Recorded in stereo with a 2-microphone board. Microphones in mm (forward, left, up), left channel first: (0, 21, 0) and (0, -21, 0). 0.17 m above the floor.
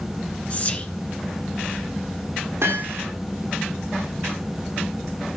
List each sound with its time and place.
0.5 s whispering: 30° left (ahead or behind), 2 m
2.6 s hammering: 80° right, 4 m